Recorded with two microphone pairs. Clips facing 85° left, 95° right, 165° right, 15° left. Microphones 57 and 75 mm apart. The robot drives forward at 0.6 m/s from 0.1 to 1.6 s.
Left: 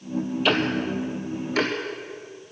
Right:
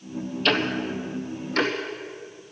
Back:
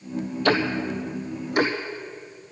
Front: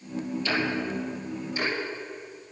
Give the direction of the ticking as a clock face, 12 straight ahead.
7 o'clock.